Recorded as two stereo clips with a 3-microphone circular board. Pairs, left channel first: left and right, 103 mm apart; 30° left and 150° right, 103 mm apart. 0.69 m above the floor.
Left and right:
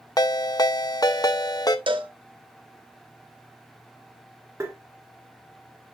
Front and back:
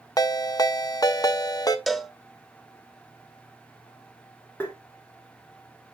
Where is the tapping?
35° right, 1.6 m.